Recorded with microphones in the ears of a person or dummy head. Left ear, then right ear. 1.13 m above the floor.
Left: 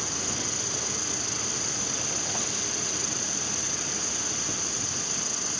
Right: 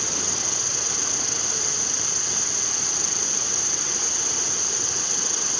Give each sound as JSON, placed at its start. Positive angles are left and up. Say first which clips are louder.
{"t": 0.0, "sound": "an insect", "louder": "right 5 dB", "side_deg": -10}